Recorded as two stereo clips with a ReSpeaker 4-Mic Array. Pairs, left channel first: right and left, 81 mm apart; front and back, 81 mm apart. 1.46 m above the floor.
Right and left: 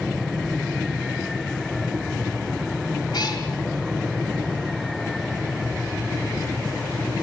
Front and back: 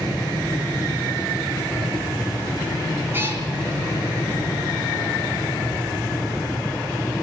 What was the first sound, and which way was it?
A cat meowing, 120° right.